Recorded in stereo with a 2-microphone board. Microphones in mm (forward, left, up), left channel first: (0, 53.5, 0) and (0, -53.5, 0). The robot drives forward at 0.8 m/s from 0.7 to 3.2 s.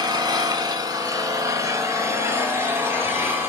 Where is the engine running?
40° right (ahead or behind), 2 m; by 3.5 s 20° right (ahead or behind), 4 m.